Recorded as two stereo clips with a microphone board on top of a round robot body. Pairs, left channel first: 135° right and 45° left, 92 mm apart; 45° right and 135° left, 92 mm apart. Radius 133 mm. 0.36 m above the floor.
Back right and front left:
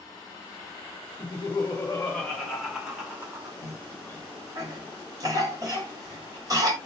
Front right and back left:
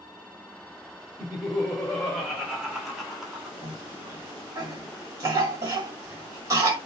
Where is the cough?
85° left, 1.3 m.